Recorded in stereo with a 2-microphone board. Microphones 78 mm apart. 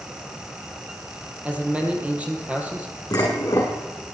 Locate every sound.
1.4 s a man speaking: 15° right (ahead or behind), 3 m
3.1 s dishes clattering: 50° left (ahead or behind), 5.5 m